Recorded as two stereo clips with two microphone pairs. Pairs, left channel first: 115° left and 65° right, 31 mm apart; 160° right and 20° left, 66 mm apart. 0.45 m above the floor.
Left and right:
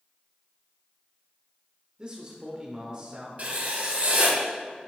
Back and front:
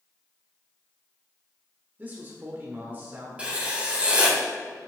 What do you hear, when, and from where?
2.0 s a man speaking: 25° right, 1.1 m
3.4 s writing: 50° right, 1.4 m